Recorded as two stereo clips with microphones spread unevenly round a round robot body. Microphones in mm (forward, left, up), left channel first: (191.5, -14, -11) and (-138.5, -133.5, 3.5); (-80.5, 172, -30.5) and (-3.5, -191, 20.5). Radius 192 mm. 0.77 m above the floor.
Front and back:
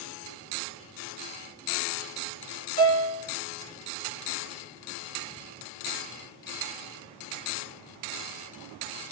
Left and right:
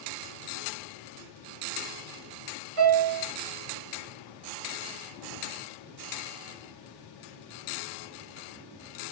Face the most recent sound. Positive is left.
turn(degrees=-35)